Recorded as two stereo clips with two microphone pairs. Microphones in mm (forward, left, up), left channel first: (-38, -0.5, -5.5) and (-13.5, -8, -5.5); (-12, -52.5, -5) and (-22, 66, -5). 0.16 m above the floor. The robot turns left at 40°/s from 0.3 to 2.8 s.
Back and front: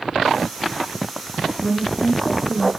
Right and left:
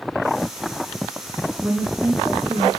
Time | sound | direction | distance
1.6 | a woman speaking | 165° left | 1.8 m